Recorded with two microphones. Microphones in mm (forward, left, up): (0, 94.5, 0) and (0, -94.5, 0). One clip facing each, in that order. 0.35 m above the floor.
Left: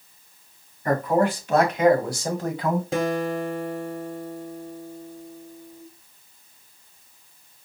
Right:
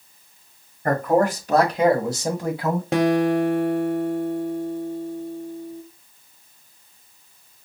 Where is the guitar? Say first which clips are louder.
Right 6 dB; 70° right (ahead or behind), 0.7 m.